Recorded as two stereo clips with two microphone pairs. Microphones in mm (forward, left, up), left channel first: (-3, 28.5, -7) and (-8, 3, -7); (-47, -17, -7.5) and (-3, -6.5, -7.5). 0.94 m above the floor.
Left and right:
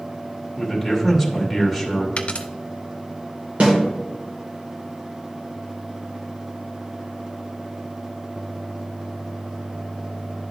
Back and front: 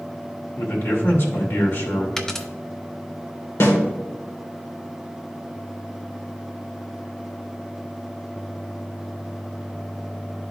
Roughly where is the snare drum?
Behind right.